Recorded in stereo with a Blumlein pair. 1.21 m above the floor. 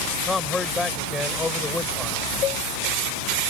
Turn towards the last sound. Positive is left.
turn(degrees=30)